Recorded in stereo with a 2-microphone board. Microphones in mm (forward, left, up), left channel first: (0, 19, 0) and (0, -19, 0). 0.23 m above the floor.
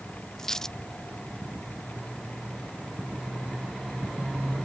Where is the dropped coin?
15° left (ahead or behind).